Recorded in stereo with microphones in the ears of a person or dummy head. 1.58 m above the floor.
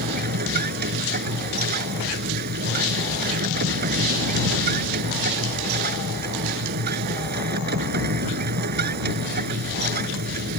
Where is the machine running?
50° right (ahead or behind).